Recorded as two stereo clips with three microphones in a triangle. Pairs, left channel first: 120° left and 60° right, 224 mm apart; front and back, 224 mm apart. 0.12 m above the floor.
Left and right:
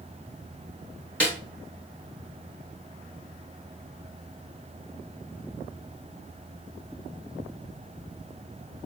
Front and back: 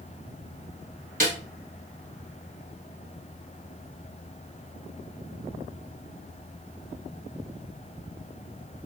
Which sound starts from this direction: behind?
A snare drum, at 1.2 s.